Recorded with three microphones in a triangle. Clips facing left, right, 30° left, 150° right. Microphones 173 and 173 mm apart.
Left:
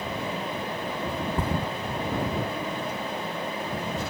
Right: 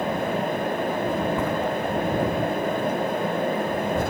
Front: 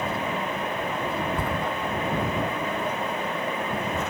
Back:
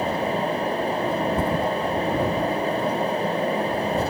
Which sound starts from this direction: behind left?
A thud, at 1.4 s.